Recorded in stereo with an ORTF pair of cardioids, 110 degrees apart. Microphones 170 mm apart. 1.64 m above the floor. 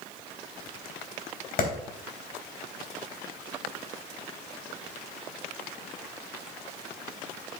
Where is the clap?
60° left, 3.5 m.